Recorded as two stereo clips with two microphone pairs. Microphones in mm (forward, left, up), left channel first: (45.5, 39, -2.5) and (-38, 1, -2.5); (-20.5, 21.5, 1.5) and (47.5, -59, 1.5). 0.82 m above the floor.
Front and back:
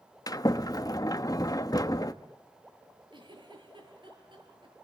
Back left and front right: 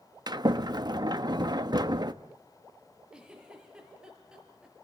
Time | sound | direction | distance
0.3 | a sliding door | 10° right | 0.9 m
3.1 | a giggle | 130° right | 6 m